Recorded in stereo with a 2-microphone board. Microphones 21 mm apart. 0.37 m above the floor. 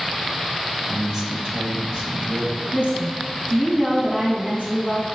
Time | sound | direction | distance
0.9 | a man speaking | 25° right (ahead or behind) | 1.6 m
2.7 | a woman speaking | 65° right (ahead or behind) | 3.5 m